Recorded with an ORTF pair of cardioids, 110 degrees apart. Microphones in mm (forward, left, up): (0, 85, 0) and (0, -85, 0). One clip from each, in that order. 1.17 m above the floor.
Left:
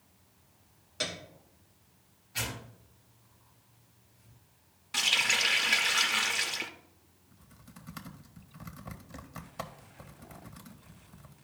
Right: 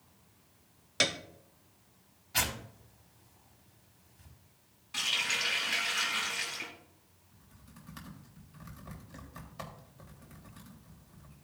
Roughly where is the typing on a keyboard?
Ahead left.